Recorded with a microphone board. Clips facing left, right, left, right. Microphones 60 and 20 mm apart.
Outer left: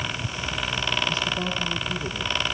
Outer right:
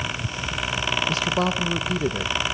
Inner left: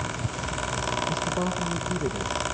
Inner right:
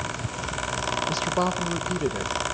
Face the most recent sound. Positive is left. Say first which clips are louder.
# outer right 4 dB, inner right 3 dB
turn(degrees=-80)